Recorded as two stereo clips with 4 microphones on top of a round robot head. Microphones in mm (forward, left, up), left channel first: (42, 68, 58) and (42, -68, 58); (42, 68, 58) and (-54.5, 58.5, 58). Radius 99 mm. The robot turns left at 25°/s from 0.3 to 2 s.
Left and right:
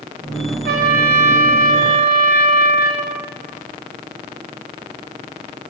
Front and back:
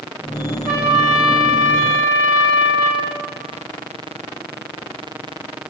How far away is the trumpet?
About 5.5 m.